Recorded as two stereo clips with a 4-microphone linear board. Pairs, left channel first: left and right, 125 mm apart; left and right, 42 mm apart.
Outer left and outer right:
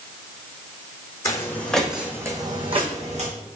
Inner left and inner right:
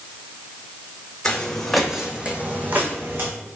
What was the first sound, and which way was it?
Footsteps, 25° left (ahead or behind).